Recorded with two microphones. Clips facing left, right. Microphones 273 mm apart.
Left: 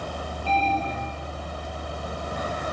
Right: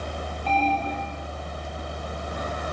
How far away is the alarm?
About 5 m.